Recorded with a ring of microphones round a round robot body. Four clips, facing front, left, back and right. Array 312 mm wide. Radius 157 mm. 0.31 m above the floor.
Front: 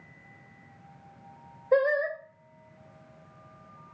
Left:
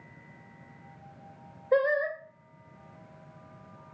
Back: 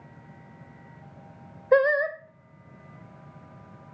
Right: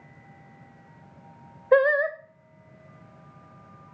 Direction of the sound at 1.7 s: 120° right.